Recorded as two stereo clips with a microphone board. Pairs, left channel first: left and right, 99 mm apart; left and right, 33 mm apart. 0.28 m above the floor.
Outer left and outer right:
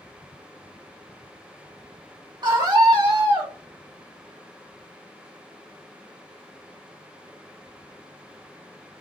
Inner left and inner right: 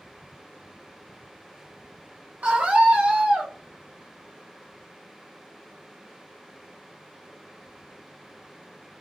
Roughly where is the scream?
Right.